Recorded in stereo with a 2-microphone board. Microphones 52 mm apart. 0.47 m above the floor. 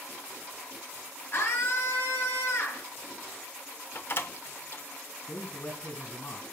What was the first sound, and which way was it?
A scream, 45° left (ahead or behind).